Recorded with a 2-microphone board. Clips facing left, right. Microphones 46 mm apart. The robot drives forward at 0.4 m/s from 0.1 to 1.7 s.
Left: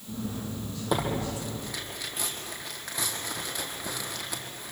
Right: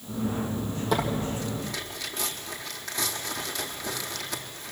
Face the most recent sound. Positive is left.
turn(degrees=5)  # may be behind; listen again after turning